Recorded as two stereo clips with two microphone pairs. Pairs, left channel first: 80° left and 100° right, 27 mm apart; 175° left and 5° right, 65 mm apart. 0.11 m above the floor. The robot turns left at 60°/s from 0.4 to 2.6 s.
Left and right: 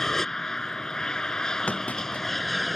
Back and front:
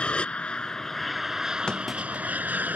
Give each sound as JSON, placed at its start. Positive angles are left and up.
{"t": 0.0, "sound": "an aircraft", "azimuth_deg": 130}
{"t": 1.7, "sound": "a clunk", "azimuth_deg": 100}